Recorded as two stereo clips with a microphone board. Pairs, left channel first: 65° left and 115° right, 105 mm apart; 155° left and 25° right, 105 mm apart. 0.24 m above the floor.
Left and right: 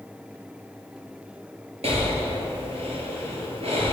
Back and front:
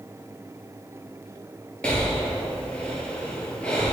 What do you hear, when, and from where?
1.8 s breathing: 125° right, 1.2 m